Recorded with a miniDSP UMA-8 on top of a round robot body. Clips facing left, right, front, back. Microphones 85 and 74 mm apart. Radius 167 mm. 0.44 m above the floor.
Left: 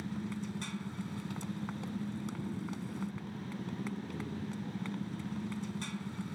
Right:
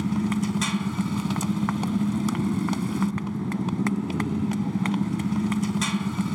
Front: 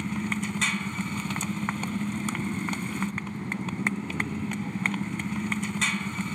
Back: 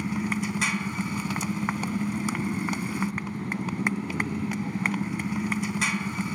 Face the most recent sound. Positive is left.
turn(degrees=-100)